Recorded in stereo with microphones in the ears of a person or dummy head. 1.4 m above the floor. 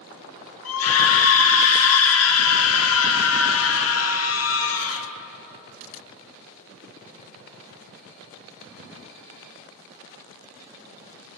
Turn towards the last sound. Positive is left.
turn(degrees=70)  # may be behind; listen again after turning